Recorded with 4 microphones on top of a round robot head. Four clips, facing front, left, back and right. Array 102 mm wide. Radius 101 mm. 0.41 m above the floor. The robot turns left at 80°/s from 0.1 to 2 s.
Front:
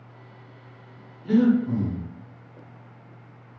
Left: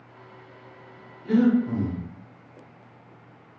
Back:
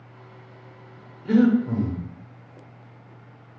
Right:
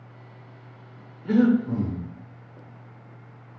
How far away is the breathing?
About 0.9 m.